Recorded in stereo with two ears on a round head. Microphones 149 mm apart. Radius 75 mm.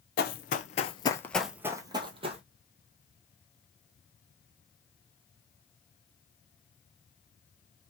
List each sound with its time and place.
0.2 s running footsteps: 65° left (ahead or behind), 0.9 m; by 2.4 s 40° right (ahead or behind), 1.0 m